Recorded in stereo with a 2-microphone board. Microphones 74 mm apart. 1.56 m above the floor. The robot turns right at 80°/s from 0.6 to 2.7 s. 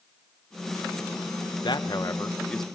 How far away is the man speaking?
About 1.5 m.